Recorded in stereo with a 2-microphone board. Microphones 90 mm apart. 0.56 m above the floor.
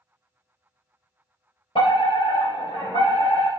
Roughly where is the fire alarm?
Left.